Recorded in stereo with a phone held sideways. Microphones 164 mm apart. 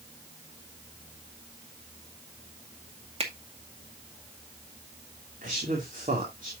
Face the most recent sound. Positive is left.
turn(degrees=-55)  # may be behind; listen again after turning